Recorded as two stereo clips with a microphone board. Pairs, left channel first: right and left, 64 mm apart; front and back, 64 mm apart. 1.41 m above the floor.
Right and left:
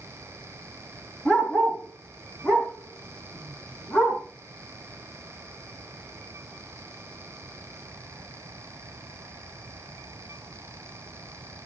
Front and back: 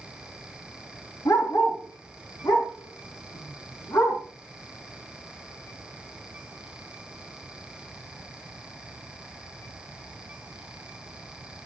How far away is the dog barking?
About 5.5 m.